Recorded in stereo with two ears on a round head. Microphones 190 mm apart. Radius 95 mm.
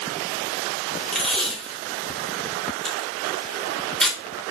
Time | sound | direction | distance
1.1 | tape being pulled | centre (ahead or behind) | 3.5 m